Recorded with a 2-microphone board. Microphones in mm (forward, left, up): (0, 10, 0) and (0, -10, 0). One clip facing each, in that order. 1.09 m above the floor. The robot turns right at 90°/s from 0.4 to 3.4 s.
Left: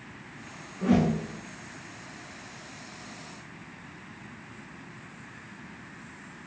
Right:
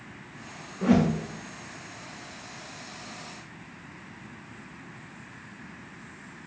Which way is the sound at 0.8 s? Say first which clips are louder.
Right 2 dB; 35° right (ahead or behind).